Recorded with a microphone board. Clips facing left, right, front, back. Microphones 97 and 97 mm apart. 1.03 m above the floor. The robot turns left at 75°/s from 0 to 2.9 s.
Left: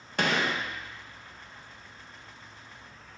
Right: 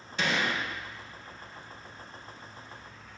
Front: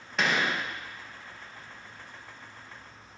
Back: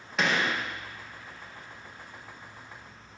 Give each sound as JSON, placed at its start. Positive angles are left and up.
{"t": 0.2, "sound": "a gunshot", "azimuth_deg": 90, "distance_m": 0.8}